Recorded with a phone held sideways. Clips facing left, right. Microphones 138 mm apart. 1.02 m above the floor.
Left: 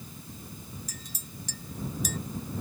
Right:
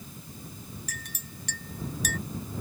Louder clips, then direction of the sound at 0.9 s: Right 1 dB; 75° right (ahead or behind).